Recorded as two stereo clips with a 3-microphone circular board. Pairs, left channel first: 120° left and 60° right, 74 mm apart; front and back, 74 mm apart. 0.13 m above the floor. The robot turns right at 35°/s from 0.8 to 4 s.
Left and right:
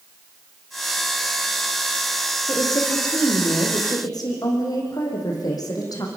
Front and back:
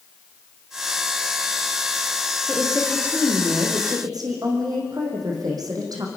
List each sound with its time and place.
2.5 s a woman speaking: 95° left, 5.5 m; by 6.1 s 150° left, 5.5 m